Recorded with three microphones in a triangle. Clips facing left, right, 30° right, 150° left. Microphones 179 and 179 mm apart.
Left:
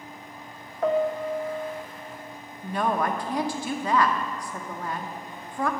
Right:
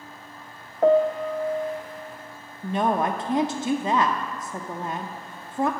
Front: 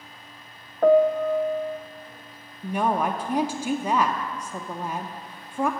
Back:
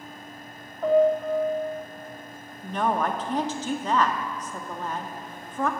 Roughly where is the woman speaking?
Right.